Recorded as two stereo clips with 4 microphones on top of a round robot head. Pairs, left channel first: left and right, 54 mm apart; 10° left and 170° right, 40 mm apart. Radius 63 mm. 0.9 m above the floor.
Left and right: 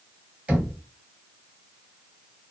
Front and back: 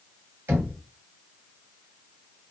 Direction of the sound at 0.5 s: 155° right.